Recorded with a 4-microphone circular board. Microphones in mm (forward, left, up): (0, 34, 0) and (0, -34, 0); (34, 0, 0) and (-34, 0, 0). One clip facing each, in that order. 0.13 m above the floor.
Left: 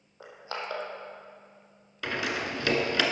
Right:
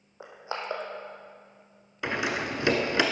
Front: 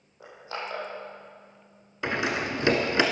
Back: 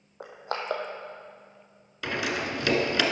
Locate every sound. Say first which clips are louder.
0.2 s crushing: right 2 dB, back 3 dB; 160° right, 2 m
2.0 s a door slam: right 2 dB, front 2 dB; 35° right, 1.3 m